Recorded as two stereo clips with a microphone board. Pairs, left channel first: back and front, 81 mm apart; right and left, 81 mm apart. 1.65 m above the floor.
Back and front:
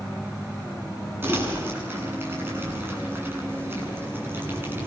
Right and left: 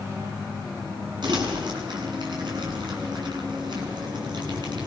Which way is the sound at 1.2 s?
65° left.